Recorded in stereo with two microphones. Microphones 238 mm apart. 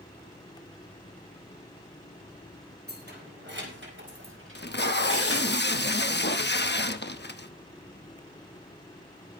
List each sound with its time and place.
2.9 s keys jangling: 40° right (ahead or behind), 4 m; by 5.5 s 60° right (ahead or behind), 5.5 m
4.5 s tape being pulled: 40° left (ahead or behind), 1.0 m